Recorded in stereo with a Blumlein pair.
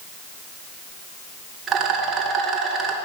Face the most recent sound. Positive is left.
turn(degrees=-25)